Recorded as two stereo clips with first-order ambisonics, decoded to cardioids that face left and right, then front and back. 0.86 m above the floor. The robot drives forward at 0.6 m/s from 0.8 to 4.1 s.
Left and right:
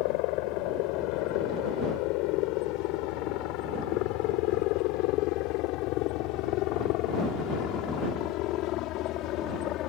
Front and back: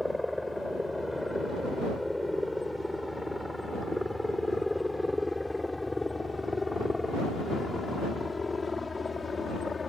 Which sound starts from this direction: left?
A helicopter, at 0.0 s.